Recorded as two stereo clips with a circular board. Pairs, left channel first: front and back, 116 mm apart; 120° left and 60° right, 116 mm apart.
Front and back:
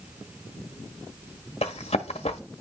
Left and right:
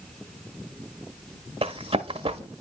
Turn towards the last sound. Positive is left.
turn(degrees=-25)